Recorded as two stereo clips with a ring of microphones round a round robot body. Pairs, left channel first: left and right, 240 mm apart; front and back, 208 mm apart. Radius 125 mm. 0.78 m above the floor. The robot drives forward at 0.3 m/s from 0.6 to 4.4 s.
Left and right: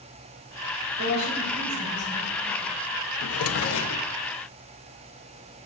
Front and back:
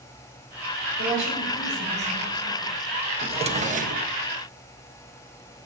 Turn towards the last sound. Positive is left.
turn(degrees=135)